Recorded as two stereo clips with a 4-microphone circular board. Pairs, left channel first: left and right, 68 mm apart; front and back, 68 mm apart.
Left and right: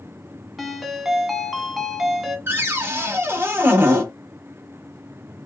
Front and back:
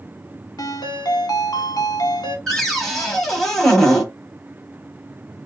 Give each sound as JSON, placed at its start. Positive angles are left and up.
{"t": 0.6, "sound": "a ringtone", "azimuth_deg": -5, "distance_m": 0.7}
{"t": 2.5, "sound": "a cupboard door", "azimuth_deg": -80, "distance_m": 1.1}